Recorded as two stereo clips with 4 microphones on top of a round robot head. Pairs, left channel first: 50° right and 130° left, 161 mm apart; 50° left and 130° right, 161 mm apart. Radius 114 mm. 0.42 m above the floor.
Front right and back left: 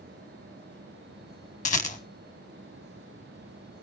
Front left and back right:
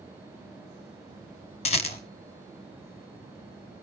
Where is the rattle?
5° right, 1.3 m.